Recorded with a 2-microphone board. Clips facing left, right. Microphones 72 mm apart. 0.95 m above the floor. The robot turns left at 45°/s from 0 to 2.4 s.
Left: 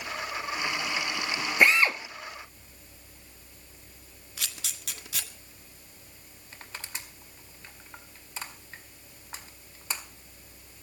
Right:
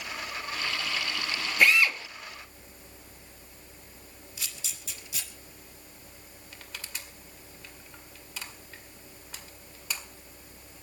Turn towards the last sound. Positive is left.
turn(degrees=30)  # may be behind; listen again after turning